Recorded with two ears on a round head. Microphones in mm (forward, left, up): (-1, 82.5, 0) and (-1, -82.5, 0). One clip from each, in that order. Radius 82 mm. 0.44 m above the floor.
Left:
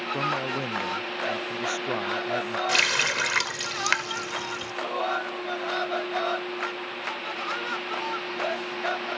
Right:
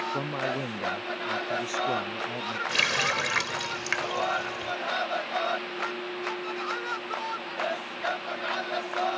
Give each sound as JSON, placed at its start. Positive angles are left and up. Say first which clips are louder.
{"t": 0.1, "sound": "a man speaking", "louder": "left 3 dB", "side_deg": 10}
{"t": 2.7, "sound": "a running tap", "louder": "left 2 dB", "side_deg": 35}